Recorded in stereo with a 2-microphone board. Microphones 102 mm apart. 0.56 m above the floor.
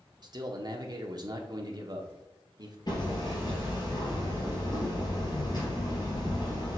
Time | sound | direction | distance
0.2 | a man speaking | 40° right (ahead or behind) | 1.0 m
2.9 | hammering | 45° left (ahead or behind) | 3 m